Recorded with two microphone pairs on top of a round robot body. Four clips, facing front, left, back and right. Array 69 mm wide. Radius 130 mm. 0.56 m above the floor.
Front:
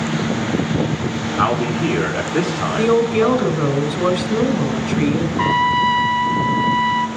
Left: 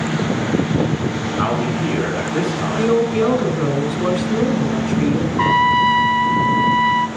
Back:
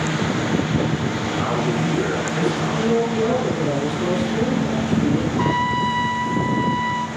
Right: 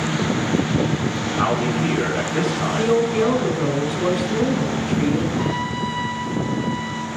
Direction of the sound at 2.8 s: Straight ahead.